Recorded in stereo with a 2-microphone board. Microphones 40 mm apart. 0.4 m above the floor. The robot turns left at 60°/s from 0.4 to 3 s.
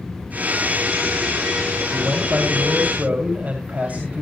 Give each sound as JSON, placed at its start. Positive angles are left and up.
{"t": 1.9, "sound": "a man speaking", "azimuth_deg": -65, "distance_m": 2.5}